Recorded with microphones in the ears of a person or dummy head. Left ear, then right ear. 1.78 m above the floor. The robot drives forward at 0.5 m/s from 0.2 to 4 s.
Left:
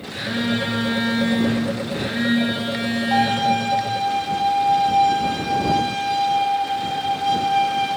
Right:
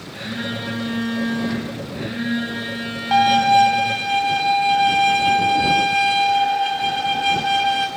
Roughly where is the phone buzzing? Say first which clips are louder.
Left 4 dB; left.